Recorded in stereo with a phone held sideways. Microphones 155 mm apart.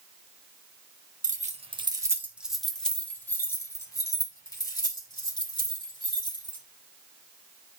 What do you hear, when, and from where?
1.2 s keys jangling: 60° right (ahead or behind), 0.8 m; by 6.6 s 35° left (ahead or behind), 4 m